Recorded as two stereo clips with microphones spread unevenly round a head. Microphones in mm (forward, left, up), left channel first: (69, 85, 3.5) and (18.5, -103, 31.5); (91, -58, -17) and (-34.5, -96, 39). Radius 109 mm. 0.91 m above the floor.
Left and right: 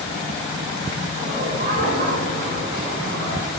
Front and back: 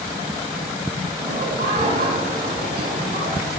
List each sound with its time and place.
1.2 s laughter: 160° right, 8 m